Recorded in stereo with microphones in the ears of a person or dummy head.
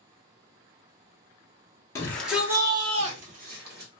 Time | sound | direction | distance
1.9 | a shout | 10° left (ahead or behind) | 0.7 m